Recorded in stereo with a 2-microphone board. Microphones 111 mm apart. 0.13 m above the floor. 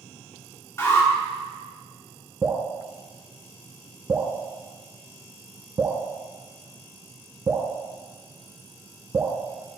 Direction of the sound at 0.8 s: 25° left (ahead or behind).